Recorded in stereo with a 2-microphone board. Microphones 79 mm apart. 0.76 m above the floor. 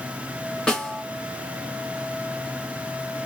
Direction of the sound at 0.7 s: 5° left (ahead or behind).